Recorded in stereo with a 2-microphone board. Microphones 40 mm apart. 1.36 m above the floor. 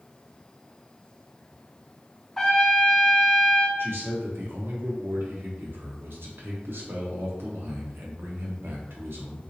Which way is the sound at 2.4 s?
10° left (ahead or behind).